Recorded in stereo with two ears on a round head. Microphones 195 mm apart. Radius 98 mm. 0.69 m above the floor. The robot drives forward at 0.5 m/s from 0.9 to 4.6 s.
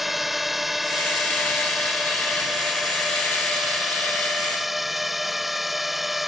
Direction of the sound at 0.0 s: Centre (ahead or behind).